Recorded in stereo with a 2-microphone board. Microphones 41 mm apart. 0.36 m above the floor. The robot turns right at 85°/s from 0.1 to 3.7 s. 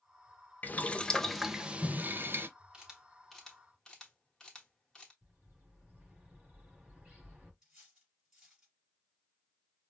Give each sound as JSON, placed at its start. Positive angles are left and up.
{"t": 0.6, "sound": "boiling", "azimuth_deg": 115, "distance_m": 0.5}
{"t": 2.7, "sound": "a camera shutter", "side_deg": -15, "distance_m": 1.4}
{"t": 5.2, "sound": "a bird", "side_deg": -35, "distance_m": 3.0}
{"t": 7.6, "sound": "cutlery clinking", "side_deg": -20, "distance_m": 4.0}